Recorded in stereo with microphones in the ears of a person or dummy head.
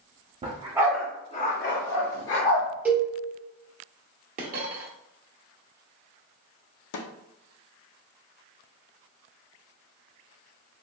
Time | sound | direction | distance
0.4 | a dog barking | 35° right (ahead or behind) | 0.8 m
2.9 | a cowbell | 5° right (ahead or behind) | 0.9 m
4.4 | a dropped coin | 40° right (ahead or behind) | 0.8 m
6.9 | a snare drum | 75° left (ahead or behind) | 0.5 m